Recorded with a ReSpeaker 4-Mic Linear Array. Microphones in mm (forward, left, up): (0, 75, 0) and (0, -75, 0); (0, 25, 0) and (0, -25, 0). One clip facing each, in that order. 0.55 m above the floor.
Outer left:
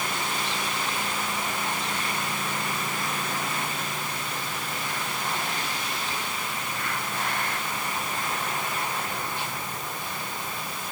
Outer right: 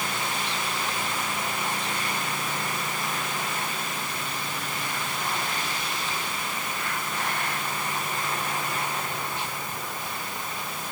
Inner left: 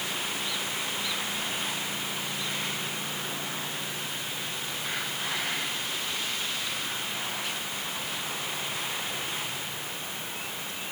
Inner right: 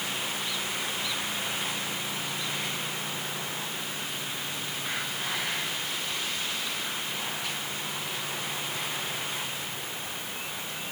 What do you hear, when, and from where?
Only background noise.